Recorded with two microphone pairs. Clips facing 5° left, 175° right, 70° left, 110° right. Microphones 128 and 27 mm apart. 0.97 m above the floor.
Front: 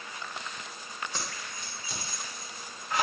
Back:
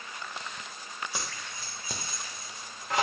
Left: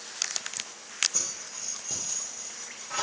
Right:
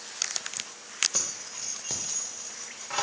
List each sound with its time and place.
1.1 s keys jangling: 95° right, 0.6 m; by 3.0 s 170° right, 1.0 m